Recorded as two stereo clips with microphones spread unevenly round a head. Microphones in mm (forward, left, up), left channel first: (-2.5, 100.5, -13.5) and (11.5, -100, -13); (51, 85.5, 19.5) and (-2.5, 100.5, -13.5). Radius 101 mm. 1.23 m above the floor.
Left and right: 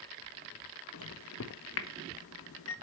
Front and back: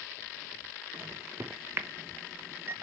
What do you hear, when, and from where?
0.9 s a microwave: 120° left, 0.9 m